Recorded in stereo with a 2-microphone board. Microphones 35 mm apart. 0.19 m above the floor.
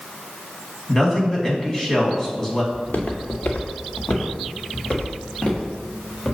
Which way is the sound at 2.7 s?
65° left (ahead or behind).